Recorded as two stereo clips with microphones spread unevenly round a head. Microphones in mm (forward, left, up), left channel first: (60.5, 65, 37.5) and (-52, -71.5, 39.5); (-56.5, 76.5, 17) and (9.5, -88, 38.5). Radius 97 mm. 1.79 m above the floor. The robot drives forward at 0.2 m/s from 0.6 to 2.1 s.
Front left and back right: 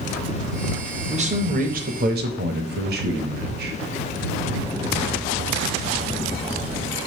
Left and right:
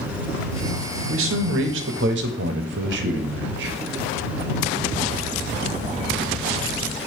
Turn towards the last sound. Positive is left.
turn(degrees=-90)